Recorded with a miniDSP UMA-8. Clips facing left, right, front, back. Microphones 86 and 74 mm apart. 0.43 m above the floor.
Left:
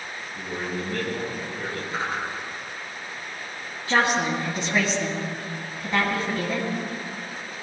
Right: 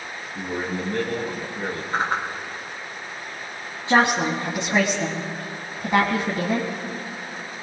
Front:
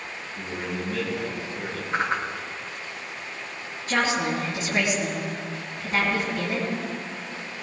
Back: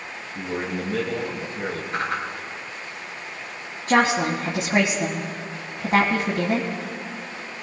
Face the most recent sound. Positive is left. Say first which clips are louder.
# right 3 dB, back 5 dB
turn(degrees=-150)